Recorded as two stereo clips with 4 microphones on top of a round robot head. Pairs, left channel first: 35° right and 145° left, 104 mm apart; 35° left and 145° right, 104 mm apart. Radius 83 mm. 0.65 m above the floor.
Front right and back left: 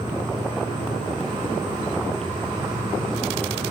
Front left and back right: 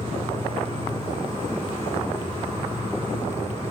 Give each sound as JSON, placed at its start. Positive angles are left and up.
{"t": 0.0, "sound": "an insect", "azimuth_deg": -175, "distance_m": 4.0}